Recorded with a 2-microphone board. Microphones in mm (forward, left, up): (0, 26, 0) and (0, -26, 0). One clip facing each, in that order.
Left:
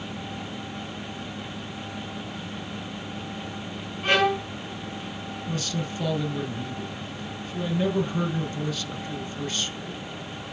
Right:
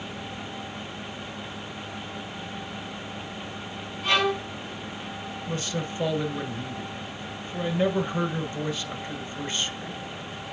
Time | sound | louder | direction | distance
4.0 | a violin | left 2 dB | 40° left (ahead or behind) | 5.5 m
5.5 | a man speaking | even | 25° right (ahead or behind) | 1.2 m